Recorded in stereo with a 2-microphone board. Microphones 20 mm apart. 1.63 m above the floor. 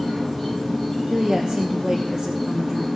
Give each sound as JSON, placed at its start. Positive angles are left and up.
{"t": 0.0, "sound": "an insect", "side_deg": -10, "distance_m": 4.5}
{"t": 1.1, "sound": "a woman speaking", "side_deg": -45, "distance_m": 1.3}